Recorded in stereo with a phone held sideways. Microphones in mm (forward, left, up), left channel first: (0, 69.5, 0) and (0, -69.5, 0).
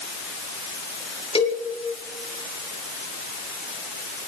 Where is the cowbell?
40° left (ahead or behind), 2.5 m.